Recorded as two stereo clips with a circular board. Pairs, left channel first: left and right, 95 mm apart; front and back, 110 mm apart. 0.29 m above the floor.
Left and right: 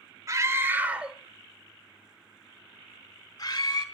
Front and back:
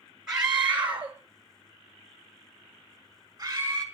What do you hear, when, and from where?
0.3 s a scream: 100° right, 1.7 m; by 3.8 s 120° left, 3.5 m